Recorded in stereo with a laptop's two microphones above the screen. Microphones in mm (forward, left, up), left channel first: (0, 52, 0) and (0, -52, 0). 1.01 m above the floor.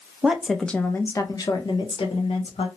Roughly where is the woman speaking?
Centre.